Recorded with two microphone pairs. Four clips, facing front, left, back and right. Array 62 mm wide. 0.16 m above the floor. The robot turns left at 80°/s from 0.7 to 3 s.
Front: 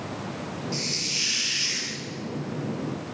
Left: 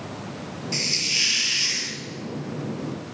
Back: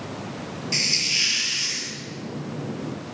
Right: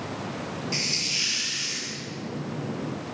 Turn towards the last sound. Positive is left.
turn(degrees=-10)